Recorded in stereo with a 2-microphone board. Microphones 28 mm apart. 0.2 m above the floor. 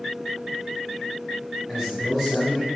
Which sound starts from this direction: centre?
A man speaking, at 1.7 s.